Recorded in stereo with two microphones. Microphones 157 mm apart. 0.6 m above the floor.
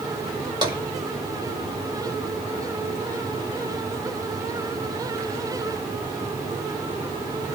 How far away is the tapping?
About 1.6 m.